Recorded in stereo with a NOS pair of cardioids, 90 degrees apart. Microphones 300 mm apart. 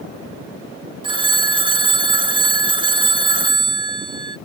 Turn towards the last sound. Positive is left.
turn(degrees=-15)